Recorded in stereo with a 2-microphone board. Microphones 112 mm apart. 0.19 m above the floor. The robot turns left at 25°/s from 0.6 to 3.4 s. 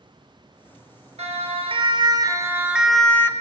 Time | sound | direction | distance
1.2 | a siren | 70° right (ahead or behind) | 3.5 m